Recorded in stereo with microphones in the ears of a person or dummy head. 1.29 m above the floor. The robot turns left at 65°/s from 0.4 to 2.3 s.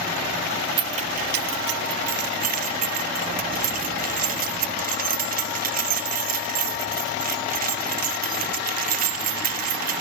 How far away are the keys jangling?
About 1.1 m.